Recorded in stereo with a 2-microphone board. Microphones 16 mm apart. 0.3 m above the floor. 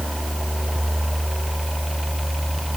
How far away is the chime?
No chime in this recording.